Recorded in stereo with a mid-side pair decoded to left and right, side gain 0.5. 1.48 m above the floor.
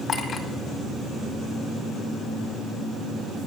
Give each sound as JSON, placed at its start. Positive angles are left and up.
{"t": 0.1, "sound": "a clink", "azimuth_deg": 45, "distance_m": 2.0}